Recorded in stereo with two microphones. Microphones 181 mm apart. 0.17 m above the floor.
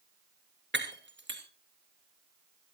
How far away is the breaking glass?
About 2.5 m.